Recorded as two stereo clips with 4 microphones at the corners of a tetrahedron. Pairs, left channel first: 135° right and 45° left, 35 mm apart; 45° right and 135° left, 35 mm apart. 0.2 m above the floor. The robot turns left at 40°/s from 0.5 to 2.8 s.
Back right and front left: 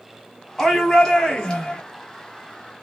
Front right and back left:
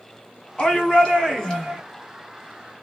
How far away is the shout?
About 1.3 m.